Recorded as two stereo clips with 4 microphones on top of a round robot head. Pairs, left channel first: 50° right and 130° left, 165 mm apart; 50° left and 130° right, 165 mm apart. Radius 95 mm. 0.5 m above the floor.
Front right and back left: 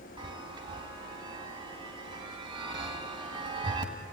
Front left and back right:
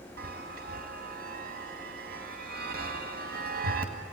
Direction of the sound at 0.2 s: 165° right.